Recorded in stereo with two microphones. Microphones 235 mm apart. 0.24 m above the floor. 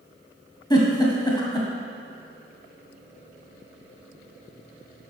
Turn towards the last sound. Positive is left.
turn(degrees=20)  # may be behind; listen again after turning